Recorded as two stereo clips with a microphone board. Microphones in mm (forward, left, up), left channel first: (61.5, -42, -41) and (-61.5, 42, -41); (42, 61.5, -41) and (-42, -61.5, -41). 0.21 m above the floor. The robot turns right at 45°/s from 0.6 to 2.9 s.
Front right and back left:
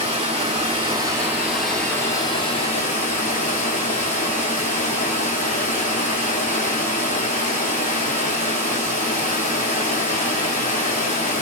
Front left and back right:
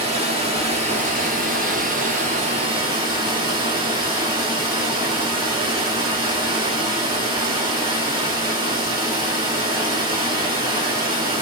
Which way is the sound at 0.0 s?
170° right.